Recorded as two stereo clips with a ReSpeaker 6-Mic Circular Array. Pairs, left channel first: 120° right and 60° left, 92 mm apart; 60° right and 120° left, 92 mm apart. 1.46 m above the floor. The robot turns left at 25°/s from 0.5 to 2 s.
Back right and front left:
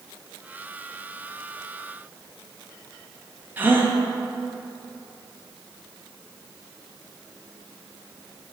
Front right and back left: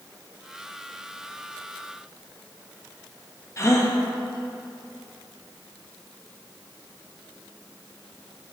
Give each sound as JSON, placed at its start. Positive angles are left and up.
{"t": 3.6, "sound": "a gasp", "azimuth_deg": -5, "distance_m": 0.9}